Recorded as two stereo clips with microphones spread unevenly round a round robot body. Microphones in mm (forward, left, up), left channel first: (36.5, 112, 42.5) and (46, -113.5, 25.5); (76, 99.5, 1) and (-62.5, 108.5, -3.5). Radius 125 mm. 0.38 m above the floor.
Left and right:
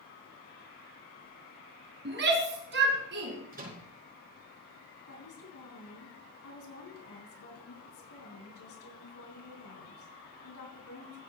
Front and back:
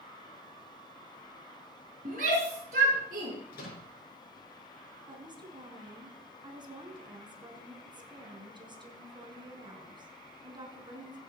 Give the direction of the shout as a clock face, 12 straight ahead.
4 o'clock.